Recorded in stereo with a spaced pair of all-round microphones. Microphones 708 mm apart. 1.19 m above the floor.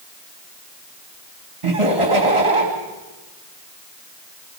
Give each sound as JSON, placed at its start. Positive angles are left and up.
{"t": 1.6, "sound": "laughter", "side_deg": -45, "distance_m": 2.5}